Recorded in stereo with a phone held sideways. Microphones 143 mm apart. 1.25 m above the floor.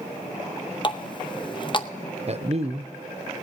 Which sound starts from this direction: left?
A running tap, at 0.8 s.